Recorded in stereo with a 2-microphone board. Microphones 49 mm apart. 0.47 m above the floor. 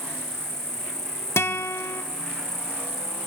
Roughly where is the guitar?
Left.